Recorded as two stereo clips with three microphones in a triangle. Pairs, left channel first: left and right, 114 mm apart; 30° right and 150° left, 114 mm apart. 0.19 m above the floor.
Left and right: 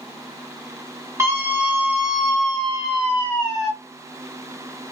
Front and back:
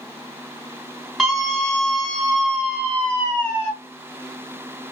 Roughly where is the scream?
Behind right.